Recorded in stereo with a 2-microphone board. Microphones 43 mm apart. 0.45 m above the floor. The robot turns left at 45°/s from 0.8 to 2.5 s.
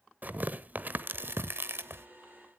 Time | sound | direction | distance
0.2 | tearing paper | 45° right (ahead or behind) | 0.9 m